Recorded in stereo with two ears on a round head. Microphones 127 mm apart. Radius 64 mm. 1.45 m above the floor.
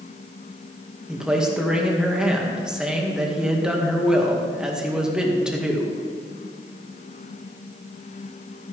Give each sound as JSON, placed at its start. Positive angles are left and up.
{"t": 1.1, "sound": "a man speaking", "side_deg": -5, "distance_m": 1.9}